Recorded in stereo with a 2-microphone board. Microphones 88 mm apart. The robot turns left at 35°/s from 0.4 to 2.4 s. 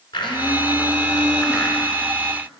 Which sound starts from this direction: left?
A blender, at 0.1 s.